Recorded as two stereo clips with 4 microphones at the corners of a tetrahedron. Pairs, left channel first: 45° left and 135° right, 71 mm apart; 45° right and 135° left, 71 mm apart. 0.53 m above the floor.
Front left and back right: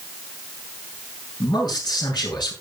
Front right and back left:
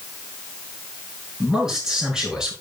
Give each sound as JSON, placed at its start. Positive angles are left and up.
{"t": 1.4, "sound": "a man speaking", "azimuth_deg": 50, "distance_m": 6.0}